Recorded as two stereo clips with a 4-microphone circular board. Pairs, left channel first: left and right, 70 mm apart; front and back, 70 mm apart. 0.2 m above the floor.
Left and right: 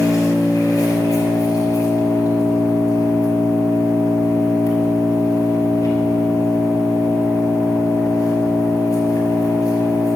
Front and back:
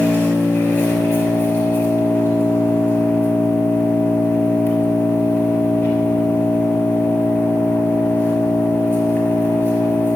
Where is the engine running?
60° left, 4 m.